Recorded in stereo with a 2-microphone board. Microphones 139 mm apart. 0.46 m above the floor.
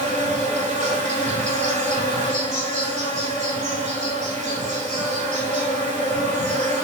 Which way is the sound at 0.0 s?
60° right (ahead or behind).